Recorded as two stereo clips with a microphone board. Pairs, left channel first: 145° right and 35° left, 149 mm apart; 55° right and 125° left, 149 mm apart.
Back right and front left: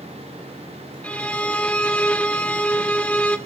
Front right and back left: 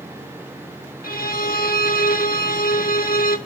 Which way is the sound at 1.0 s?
65° right.